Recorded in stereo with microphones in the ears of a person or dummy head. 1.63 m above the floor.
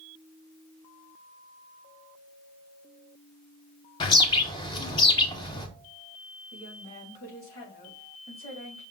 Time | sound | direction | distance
4.0 | a bird | 25° left (ahead or behind) | 1.0 m
6.5 | a woman speaking | 45° left (ahead or behind) | 3.5 m